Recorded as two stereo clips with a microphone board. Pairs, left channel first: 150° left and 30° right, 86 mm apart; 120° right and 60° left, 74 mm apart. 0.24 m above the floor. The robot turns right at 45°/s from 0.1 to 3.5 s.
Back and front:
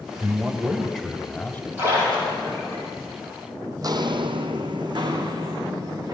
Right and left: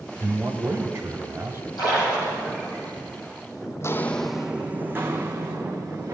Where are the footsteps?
70° right, 0.7 m; by 6.2 s 15° left, 2 m.